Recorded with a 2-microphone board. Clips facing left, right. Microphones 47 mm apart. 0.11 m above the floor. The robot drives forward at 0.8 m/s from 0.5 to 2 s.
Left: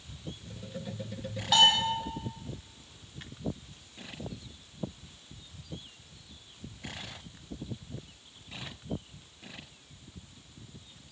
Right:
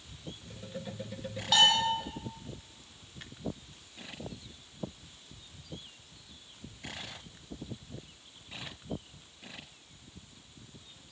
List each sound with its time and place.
1.5 s a bell: 5° left (ahead or behind), 4 m